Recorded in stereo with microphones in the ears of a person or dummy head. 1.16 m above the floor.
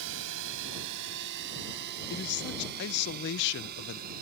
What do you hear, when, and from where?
0.0 s a drone: 75° right (ahead or behind); by 4.2 s 50° right (ahead or behind)
2.1 s a man speaking: 60° left (ahead or behind)